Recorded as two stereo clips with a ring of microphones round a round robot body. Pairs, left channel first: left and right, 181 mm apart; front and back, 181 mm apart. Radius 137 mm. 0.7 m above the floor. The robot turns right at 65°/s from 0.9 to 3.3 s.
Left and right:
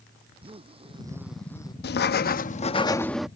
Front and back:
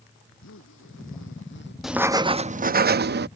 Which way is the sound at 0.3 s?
30° right.